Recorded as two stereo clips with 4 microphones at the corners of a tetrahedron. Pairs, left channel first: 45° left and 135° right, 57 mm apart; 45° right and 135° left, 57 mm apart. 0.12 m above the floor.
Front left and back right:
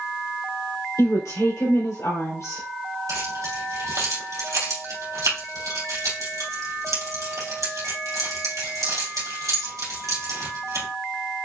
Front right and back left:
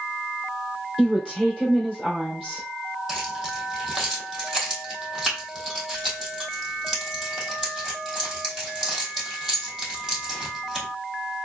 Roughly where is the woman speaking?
Ahead left.